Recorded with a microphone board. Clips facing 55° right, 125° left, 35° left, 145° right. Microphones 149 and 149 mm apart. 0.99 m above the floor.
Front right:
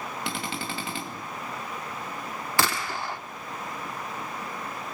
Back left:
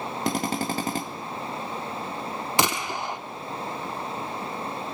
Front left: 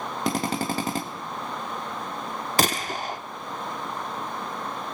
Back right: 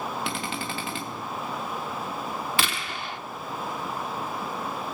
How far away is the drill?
About 1.9 m.